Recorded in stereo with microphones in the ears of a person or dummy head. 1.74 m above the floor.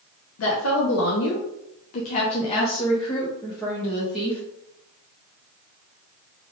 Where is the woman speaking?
75° left (ahead or behind), 1.0 m; by 4.4 s 5° left (ahead or behind), 1.7 m.